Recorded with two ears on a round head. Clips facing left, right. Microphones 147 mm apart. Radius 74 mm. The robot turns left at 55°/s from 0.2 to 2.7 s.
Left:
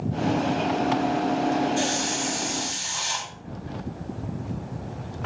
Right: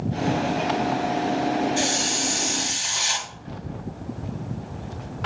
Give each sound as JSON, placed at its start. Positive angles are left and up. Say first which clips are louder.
{"t": 1.8, "sound": "a hiss", "louder": "even", "azimuth_deg": -25, "distance_m": 1.3}